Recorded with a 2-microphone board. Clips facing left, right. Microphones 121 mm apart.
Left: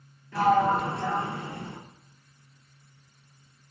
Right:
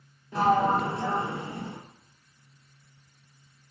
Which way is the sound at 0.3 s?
20° right (ahead or behind).